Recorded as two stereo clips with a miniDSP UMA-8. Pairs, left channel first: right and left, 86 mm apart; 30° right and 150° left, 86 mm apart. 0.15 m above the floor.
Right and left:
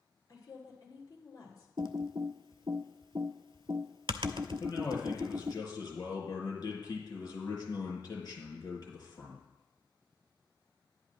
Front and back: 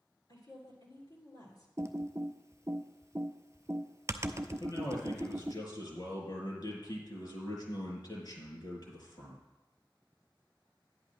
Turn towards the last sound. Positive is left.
turn(degrees=-60)